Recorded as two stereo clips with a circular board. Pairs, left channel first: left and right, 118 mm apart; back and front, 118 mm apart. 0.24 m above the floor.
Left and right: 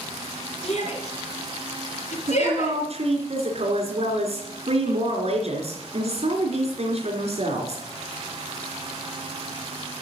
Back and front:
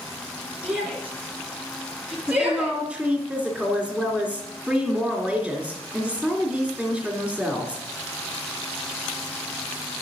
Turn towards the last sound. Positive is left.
turn(degrees=-90)